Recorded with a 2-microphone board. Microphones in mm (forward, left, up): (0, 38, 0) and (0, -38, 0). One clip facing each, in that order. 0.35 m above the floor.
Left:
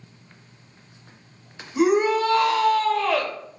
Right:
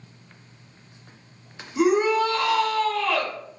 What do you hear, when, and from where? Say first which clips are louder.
1.8 s a shout: left 1 dB; 25° left (ahead or behind), 1.2 m